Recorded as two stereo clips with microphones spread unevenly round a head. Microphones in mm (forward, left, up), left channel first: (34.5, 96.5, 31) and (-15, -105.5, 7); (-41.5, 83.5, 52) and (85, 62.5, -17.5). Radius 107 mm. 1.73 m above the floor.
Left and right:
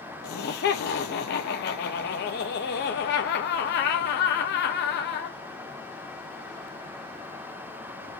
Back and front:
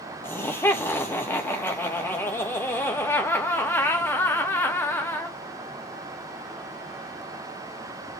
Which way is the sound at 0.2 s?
115° left.